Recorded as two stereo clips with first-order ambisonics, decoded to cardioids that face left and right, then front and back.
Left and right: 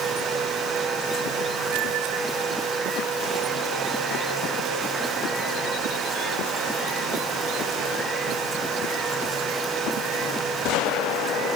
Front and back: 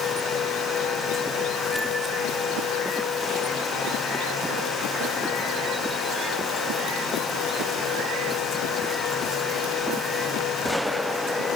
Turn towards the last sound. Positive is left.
No sound to turn to.